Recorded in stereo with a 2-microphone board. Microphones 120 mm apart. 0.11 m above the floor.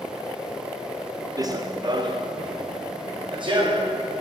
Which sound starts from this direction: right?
Running footsteps, at 1.4 s.